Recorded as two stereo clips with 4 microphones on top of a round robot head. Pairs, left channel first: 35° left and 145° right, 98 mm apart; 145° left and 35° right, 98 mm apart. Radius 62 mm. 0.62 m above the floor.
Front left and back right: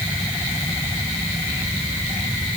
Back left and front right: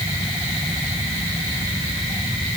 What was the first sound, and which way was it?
Only background noise.